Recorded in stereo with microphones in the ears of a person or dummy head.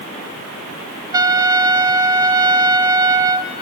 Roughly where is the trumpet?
Centre.